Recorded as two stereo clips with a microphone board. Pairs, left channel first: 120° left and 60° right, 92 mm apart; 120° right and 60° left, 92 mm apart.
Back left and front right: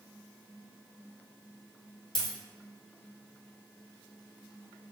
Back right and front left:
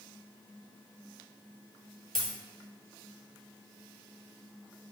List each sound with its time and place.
2.1 s a dropped coin: 155° left, 1.3 m